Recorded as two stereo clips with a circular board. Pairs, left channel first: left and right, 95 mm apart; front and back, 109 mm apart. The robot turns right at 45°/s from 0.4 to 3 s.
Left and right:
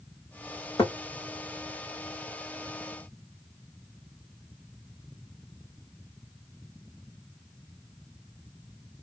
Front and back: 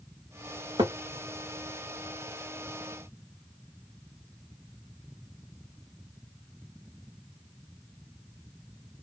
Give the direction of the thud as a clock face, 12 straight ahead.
7 o'clock.